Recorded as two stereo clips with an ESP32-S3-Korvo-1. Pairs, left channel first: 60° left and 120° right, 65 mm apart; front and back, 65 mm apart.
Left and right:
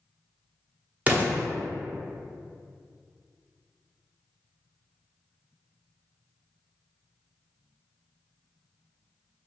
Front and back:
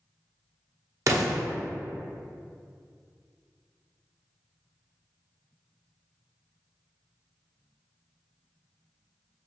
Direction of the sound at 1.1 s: Straight behind.